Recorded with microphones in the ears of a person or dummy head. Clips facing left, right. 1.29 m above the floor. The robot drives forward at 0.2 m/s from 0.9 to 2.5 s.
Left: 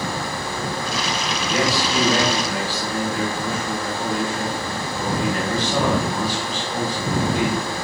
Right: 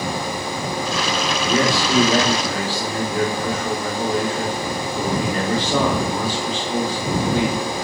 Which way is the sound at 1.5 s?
70° right (ahead or behind).